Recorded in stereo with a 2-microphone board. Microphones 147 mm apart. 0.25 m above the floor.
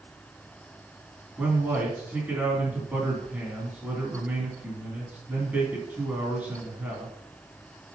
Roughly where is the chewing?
No chewing in this recording.